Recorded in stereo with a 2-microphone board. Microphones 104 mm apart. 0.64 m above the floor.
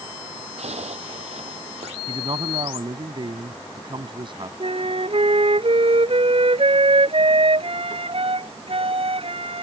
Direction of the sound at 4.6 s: 60° right (ahead or behind).